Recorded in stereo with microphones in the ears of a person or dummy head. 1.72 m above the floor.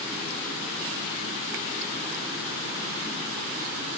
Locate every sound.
Only background noise.